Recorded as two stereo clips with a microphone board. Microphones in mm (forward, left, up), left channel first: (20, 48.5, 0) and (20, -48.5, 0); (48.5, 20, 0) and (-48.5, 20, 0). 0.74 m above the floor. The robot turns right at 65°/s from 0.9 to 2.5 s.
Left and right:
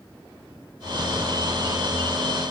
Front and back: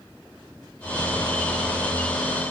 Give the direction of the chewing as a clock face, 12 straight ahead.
No chewing in this recording.